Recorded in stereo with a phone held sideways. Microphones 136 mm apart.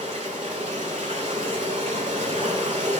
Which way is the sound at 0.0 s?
55° right (ahead or behind).